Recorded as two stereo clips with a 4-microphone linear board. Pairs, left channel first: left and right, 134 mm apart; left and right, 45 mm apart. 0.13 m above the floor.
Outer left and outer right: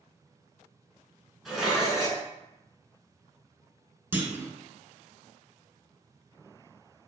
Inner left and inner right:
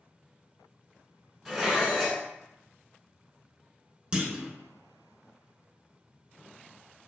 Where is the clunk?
15° right (ahead or behind), 0.5 m.